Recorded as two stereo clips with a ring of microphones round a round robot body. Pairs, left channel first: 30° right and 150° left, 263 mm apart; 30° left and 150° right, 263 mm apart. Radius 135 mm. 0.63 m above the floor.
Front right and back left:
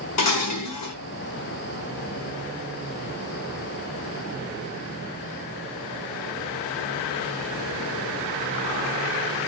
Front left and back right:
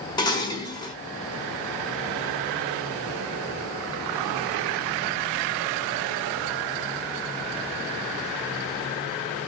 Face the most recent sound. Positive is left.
turn(degrees=-45)